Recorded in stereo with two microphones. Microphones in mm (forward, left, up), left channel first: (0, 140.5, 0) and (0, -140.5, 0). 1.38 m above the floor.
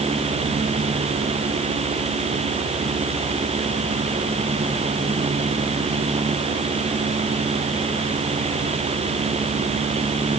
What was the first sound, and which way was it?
Only background noise.